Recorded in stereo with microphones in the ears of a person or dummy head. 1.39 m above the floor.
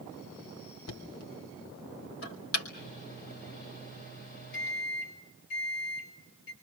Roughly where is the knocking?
Left.